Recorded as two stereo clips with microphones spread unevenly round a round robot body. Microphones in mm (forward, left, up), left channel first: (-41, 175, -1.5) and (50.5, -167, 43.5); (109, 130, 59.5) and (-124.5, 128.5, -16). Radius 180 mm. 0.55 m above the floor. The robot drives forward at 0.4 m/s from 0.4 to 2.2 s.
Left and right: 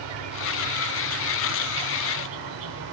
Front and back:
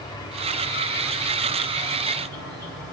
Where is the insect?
85° right, 1.7 m; by 2.9 s 110° right, 1.8 m.